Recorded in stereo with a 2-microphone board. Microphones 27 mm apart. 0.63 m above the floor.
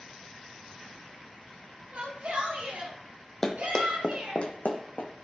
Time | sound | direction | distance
1.9 | a shout | 60° right (ahead or behind) | 4 m
3.4 | running footsteps | 10° left (ahead or behind) | 1.7 m